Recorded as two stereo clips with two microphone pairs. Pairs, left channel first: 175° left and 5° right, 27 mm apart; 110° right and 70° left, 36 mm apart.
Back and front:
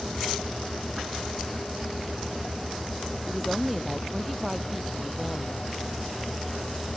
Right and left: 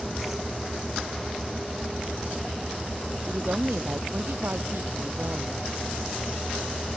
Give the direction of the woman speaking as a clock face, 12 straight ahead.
9 o'clock.